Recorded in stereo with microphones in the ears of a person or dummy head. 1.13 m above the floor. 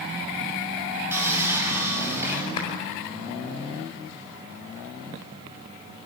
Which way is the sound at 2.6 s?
35° left (ahead or behind).